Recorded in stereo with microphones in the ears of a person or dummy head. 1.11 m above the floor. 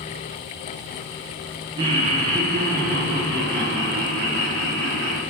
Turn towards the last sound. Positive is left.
turn(degrees=-65)  # may be behind; listen again after turning